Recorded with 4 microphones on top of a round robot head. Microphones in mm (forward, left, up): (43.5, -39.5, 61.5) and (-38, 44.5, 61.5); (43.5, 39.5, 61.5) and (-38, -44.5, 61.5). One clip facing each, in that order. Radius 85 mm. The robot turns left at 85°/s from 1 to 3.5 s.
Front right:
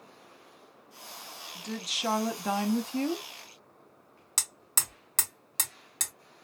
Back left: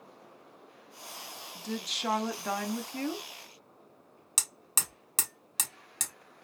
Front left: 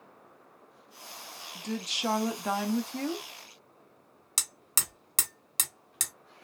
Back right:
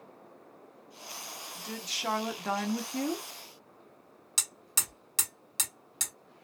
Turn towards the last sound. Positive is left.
turn(degrees=55)